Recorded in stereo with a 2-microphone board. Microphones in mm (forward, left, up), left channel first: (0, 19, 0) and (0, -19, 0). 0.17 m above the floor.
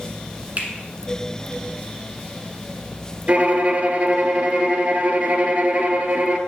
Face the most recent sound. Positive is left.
turn(degrees=-40)  # may be behind; listen again after turning